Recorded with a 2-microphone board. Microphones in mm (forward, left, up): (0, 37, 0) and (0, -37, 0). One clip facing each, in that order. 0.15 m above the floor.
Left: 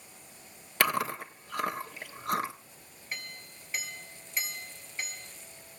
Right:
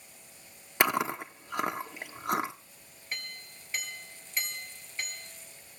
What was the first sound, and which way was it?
Chewing, 20° right (ahead or behind).